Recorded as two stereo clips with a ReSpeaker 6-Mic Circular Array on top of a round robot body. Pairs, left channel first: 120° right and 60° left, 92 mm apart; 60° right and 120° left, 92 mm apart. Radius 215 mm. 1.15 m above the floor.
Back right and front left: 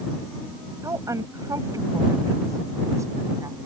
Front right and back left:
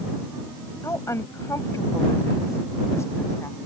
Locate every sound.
0.8 s a woman speaking: straight ahead